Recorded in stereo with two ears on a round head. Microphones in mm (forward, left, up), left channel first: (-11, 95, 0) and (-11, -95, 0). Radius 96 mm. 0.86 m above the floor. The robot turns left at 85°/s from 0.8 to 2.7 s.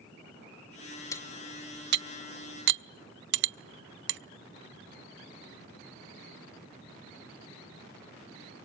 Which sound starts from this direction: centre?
Cutlery clinking, at 1.1 s.